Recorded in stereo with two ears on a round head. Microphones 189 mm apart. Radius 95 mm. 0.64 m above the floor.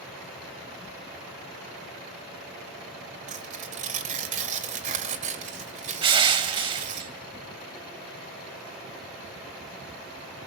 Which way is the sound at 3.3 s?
35° right (ahead or behind).